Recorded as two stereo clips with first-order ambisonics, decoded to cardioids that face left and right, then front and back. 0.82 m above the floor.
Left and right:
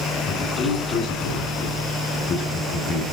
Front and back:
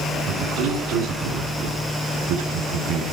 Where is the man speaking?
145° left, 9 m.